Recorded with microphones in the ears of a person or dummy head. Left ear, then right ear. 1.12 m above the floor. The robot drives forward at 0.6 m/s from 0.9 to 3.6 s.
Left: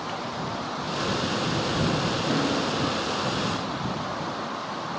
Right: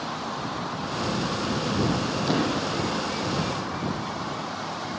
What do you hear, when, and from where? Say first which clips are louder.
2.3 s a thud: right 2 dB; 35° right (ahead or behind), 6.5 m; by 2.6 s 40° right (ahead or behind), 6.5 m